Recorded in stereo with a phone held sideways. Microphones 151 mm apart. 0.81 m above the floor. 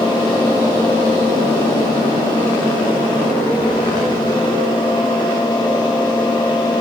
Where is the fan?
30° left (ahead or behind), 2.5 m.